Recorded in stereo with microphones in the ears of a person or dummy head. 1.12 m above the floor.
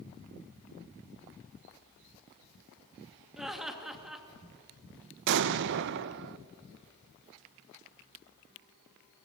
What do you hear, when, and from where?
3.4 s laughter: 5° right (ahead or behind), 2.5 m
5.3 s an explosion: 60° right (ahead or behind), 0.5 m